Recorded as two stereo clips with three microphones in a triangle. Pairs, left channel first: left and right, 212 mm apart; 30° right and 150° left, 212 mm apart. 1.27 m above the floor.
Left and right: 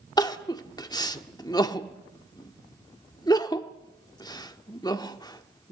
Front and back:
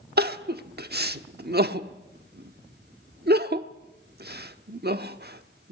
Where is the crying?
155° left, 1.1 m.